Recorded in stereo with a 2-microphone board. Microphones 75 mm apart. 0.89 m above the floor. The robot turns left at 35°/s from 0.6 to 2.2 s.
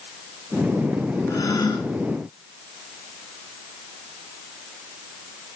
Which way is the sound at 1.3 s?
50° left (ahead or behind).